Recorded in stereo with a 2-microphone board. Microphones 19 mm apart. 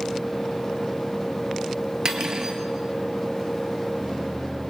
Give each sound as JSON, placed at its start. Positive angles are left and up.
{"t": 2.0, "sound": "cutlery clinking", "side_deg": -40, "distance_m": 1.9}